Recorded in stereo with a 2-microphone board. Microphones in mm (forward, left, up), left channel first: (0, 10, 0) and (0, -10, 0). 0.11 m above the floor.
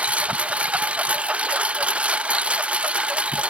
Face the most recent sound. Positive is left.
turn(degrees=-60)  # may be behind; listen again after turning